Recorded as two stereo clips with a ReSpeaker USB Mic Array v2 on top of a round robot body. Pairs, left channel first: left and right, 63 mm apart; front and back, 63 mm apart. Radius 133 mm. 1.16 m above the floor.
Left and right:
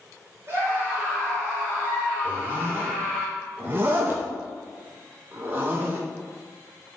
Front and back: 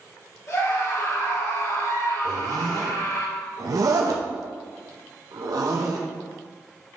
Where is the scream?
40° right, 3 m; by 3.2 s 35° right, 6 m.